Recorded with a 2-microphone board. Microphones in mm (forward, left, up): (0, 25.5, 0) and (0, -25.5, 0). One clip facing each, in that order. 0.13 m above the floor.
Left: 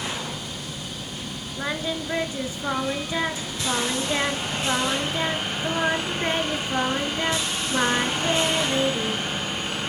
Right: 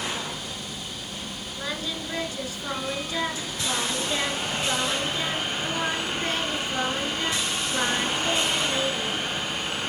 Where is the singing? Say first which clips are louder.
Left 5 dB; 30° left (ahead or behind), 0.6 m.